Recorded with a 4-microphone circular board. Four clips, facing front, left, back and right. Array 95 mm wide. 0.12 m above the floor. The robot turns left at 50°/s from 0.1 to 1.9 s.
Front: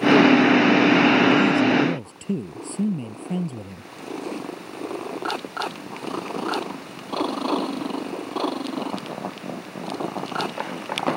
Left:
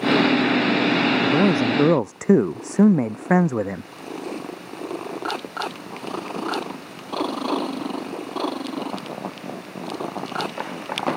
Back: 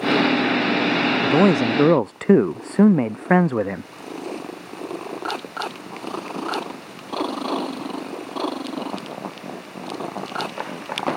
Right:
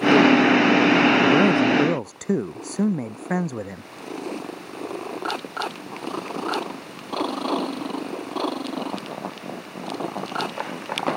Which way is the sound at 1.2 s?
175° right.